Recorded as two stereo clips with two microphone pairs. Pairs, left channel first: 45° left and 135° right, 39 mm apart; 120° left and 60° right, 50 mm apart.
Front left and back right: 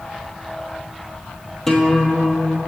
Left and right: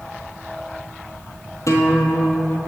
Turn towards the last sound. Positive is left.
turn(degrees=125)